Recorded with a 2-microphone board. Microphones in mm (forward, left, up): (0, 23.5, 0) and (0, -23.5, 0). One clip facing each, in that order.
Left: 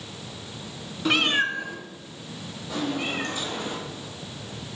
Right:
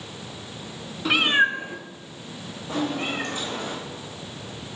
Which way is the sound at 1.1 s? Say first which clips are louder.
Right 3 dB; centre (ahead or behind).